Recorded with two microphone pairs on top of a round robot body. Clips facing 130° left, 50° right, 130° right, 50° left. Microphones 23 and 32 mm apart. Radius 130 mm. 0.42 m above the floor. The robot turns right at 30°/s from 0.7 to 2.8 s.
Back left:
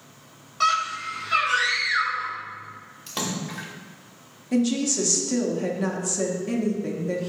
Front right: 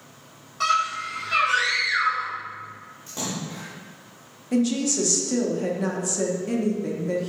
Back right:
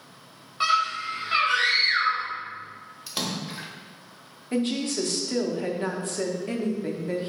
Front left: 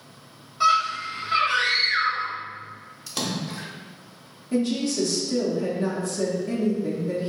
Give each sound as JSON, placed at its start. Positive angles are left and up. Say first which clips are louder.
{"t": 0.6, "sound": "a scream", "louder": "even, front left 3 dB", "azimuth_deg": -170, "distance_m": 1.8}
{"t": 3.1, "sound": "a splash", "louder": "back left 2 dB, front left 2 dB", "azimuth_deg": 155, "distance_m": 0.7}
{"t": 4.5, "sound": "a woman speaking", "louder": "even, front left 2 dB", "azimuth_deg": -160, "distance_m": 0.8}